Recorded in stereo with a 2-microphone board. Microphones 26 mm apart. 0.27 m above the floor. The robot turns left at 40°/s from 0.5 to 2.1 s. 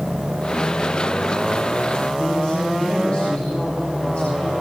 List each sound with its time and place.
2.2 s a woman speaking: 50° left (ahead or behind), 6.5 m